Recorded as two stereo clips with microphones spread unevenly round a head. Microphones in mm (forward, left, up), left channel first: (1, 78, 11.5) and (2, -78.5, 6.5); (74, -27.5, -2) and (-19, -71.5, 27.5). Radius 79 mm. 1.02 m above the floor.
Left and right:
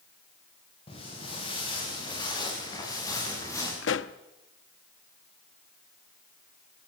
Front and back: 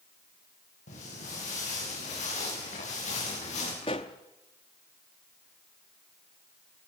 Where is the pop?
85° left, 0.8 m.